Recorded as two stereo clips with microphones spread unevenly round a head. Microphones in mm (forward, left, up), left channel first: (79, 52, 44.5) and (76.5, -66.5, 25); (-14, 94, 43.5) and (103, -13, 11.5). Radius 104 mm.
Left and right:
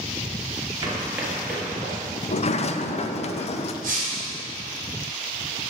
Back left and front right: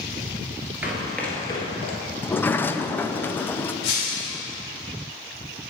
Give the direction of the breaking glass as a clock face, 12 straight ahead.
7 o'clock.